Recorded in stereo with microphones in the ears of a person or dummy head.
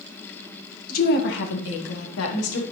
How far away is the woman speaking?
About 1.8 m.